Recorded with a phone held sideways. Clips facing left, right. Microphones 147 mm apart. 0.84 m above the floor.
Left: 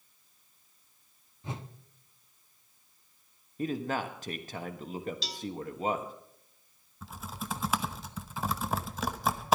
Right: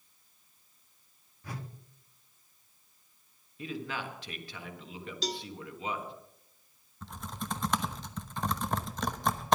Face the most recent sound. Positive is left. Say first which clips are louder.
# even
turn(degrees=5)  # may be behind; listen again after turning